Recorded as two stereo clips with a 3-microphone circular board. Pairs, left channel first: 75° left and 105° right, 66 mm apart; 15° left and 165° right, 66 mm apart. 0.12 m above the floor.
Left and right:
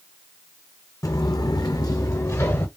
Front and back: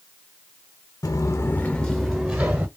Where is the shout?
No shout in this recording.